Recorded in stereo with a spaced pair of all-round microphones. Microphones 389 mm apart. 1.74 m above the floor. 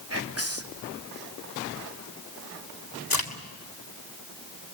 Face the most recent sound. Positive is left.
turn(degrees=60)  # may be behind; listen again after turning